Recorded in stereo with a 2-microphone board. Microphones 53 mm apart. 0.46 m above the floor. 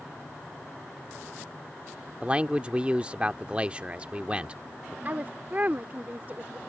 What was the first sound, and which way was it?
A man speaking, 25° right (ahead or behind).